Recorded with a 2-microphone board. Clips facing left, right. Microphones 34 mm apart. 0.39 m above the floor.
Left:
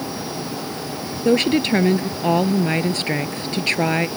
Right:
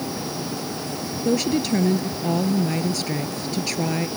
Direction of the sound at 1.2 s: 40° left (ahead or behind).